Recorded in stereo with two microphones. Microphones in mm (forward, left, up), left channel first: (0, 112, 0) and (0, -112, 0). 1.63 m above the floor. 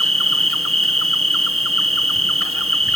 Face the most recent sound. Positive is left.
turn(degrees=-75)  # may be behind; listen again after turning